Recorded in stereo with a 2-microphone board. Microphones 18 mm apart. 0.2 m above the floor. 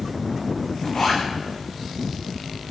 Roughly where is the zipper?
Left.